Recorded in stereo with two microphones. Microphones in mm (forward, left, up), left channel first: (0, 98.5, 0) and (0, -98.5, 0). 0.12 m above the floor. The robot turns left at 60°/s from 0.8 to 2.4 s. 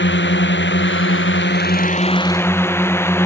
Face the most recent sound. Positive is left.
turn(degrees=15)